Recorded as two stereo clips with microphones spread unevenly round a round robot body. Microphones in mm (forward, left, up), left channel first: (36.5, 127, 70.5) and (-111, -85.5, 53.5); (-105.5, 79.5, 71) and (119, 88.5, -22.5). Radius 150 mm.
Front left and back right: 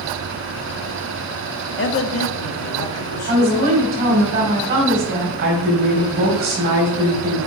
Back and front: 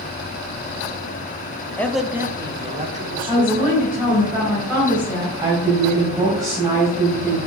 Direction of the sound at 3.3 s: 70° right.